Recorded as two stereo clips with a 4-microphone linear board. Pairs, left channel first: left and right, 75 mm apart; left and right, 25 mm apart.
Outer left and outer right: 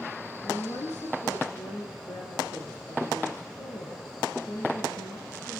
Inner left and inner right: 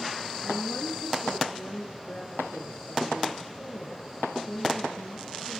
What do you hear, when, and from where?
0.4 s a woman speaking: 65° left (ahead or behind), 5.5 m